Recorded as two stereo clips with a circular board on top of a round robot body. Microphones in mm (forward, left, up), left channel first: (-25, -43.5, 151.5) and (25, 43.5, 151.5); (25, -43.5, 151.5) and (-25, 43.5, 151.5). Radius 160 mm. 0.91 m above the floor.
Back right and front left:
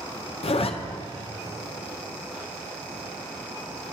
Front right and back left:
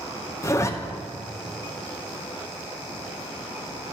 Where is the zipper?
120° right, 0.6 m.